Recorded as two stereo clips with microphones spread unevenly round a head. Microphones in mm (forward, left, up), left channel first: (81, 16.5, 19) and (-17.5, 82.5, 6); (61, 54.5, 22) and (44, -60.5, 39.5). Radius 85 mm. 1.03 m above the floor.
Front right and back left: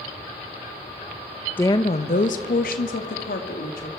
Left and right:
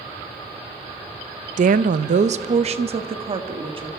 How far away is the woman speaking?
About 0.5 m.